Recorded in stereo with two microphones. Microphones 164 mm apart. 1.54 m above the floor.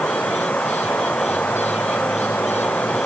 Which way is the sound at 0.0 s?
10° left (ahead or behind).